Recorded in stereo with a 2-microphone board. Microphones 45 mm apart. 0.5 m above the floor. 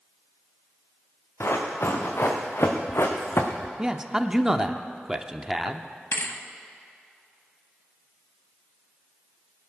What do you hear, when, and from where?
1.4 s running footsteps: 75° left (ahead or behind), 3 m; by 3.7 s 70° left (ahead or behind), 1.6 m
3.8 s a man speaking: 15° right (ahead or behind), 0.7 m
6.1 s a thud: 60° left (ahead or behind), 1.1 m